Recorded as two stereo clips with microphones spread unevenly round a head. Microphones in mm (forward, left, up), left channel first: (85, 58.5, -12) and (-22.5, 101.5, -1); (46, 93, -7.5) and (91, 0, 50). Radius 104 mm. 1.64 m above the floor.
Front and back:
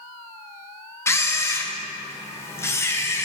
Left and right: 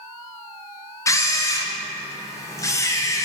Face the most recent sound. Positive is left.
turn(degrees=50)